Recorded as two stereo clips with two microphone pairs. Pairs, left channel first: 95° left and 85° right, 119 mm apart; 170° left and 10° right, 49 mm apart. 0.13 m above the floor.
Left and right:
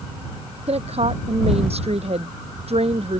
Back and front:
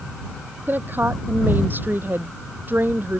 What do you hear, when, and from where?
0.7 s a woman speaking: 60° right